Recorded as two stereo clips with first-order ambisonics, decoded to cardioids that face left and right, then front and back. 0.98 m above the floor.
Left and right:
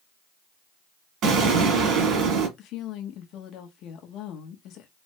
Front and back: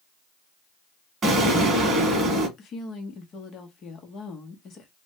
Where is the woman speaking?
55° left, 0.9 m.